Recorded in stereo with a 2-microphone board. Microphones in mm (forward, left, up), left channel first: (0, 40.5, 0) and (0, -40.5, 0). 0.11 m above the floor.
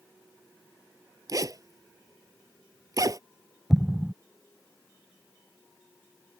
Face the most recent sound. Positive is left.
turn(degrees=0)  # may be behind; listen again after turning